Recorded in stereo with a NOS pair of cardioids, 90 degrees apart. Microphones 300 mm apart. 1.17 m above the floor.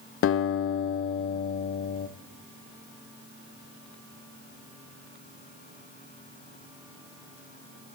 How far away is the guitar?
About 0.6 m.